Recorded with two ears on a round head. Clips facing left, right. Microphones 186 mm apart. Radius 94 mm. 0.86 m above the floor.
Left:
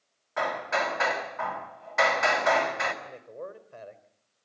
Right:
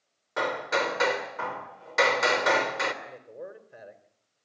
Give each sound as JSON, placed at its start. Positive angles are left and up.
{"t": 0.4, "sound": "hammering", "side_deg": -50, "distance_m": 3.0}
{"t": 3.0, "sound": "a man speaking", "side_deg": -15, "distance_m": 3.5}